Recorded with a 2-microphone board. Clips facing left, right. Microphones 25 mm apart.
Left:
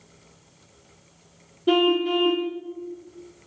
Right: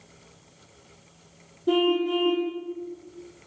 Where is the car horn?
50° left (ahead or behind), 2.5 m.